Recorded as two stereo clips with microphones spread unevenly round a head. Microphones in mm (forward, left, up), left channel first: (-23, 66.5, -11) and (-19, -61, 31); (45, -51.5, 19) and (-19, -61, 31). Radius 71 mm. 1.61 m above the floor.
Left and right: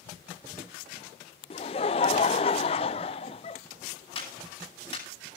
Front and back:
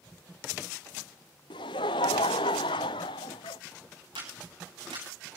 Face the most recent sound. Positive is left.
turn(degrees=145)